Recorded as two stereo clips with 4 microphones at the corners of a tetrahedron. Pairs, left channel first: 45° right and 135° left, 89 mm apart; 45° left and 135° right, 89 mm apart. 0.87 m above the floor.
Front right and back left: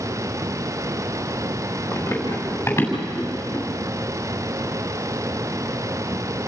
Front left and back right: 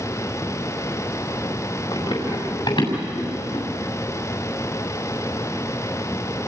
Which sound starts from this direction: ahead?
Running footsteps, at 1.9 s.